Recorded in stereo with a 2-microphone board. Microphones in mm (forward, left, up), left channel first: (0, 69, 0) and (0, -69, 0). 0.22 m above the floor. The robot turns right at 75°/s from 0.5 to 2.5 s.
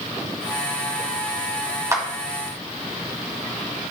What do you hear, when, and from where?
1.9 s a clap: 20° right (ahead or behind), 1.1 m; by 2.0 s 15° right (ahead or behind), 1.1 m